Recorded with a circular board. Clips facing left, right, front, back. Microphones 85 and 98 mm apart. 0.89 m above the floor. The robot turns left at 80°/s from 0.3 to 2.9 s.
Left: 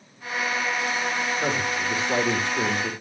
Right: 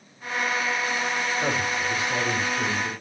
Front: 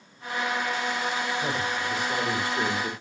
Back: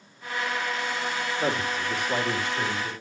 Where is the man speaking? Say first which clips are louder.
Even, back 1 dB; 165° left, 3.5 m; by 2.9 s 45° left, 3.5 m.